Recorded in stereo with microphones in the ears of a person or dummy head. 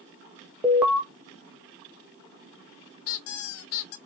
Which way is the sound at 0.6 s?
5° right (ahead or behind).